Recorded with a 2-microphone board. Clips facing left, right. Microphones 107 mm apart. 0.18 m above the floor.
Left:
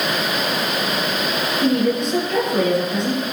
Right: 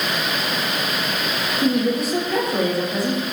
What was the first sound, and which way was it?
A woman speaking, 10° right (ahead or behind).